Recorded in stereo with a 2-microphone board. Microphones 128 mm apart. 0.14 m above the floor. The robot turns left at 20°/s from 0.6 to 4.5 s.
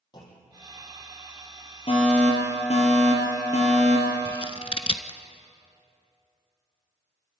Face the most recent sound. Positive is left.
turn(degrees=50)  # may be behind; listen again after turning